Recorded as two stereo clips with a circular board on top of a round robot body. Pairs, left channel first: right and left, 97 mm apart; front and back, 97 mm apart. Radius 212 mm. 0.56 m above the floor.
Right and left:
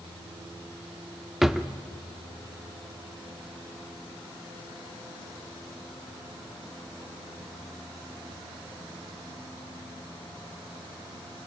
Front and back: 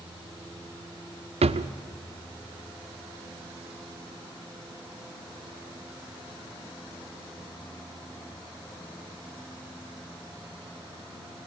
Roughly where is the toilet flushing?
I don't hear a toilet flushing.